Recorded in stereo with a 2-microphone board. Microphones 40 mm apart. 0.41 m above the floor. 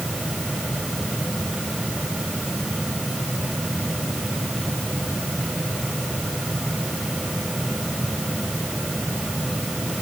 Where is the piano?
No piano in this recording.